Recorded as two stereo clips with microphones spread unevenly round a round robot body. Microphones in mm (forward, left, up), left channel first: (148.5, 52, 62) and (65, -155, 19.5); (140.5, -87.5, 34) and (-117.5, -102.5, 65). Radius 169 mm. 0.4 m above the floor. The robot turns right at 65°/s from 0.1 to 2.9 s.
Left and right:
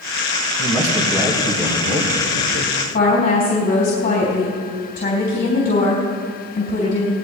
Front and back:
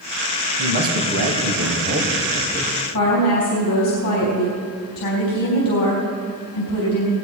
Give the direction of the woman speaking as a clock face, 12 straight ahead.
11 o'clock.